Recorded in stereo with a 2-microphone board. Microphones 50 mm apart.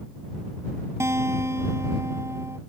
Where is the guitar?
70° right (ahead or behind).